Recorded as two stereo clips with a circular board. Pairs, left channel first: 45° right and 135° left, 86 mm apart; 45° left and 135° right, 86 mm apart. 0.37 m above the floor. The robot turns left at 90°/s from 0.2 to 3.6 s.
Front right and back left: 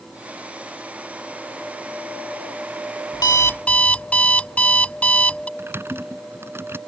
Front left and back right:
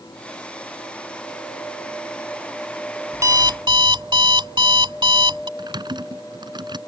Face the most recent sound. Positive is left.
turn(degrees=-160)